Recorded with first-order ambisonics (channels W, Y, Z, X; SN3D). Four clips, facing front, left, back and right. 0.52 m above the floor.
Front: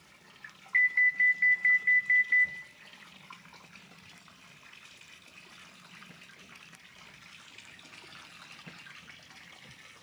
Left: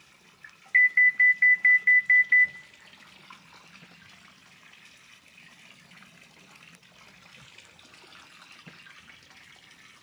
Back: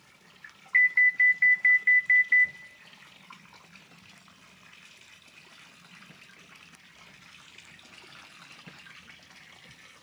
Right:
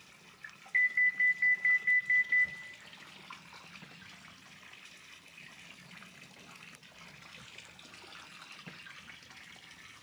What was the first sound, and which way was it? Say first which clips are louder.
An alarm: left 8 dB, back 4 dB; 115° left.